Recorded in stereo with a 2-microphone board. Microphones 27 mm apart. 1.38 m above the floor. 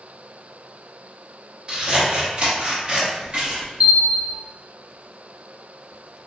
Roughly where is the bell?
Right.